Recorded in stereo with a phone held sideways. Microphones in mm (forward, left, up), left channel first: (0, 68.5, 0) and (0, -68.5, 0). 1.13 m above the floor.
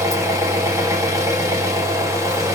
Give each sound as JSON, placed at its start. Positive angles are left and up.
{"t": 0.0, "sound": "an engine running", "side_deg": -20, "distance_m": 0.9}